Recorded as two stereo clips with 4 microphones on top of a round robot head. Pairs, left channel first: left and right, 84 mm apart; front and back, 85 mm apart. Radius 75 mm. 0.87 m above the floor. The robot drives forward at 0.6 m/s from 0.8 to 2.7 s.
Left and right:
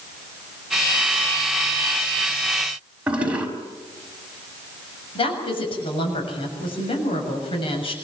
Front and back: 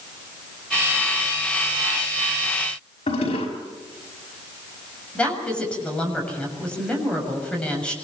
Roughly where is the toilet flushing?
Ahead.